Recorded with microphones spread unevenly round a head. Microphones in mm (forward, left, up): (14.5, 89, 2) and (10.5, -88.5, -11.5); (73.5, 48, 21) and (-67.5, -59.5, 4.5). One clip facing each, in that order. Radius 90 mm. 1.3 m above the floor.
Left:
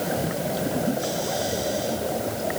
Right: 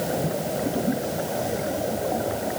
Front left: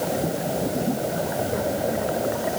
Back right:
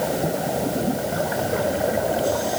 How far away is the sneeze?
I don't hear a sneeze.